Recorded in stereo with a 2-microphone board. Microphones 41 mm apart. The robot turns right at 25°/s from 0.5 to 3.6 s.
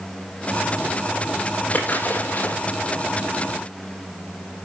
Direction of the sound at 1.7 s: 40° left (ahead or behind).